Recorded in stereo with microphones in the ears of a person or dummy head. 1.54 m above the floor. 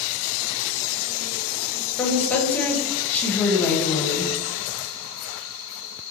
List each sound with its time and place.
2.0 s a woman speaking: 10° left (ahead or behind), 0.7 m